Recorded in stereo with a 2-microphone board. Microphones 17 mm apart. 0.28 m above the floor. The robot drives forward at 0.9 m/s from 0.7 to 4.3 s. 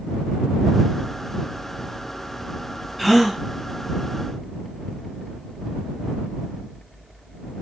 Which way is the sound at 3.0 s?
5° left (ahead or behind).